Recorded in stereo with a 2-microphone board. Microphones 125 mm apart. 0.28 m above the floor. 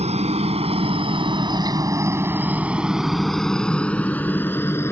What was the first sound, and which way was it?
A helicopter, 60° right (ahead or behind).